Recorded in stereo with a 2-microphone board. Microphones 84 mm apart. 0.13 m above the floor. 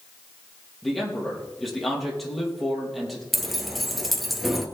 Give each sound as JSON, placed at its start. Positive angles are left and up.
{"t": 0.8, "sound": "a man speaking", "side_deg": 0, "distance_m": 4.5}
{"t": 3.3, "sound": "keys jangling", "side_deg": 0, "distance_m": 1.6}